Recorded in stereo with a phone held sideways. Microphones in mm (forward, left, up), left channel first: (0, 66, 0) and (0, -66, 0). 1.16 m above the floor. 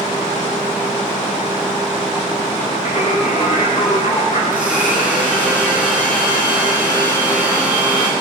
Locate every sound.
2.9 s singing: 45° left (ahead or behind), 5 m
4.5 s a blender: 10° right (ahead or behind), 5.5 m